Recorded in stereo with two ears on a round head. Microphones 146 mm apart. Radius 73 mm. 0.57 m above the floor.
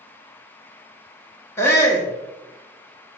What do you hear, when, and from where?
1.6 s a shout: 15° left (ahead or behind), 0.9 m